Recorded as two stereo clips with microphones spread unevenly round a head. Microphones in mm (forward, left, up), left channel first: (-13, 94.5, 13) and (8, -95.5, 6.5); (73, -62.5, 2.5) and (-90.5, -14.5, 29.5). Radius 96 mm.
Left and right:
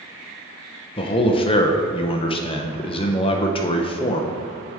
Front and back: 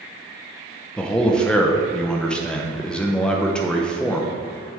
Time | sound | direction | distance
1.0 | a man speaking | 50° left | 0.5 m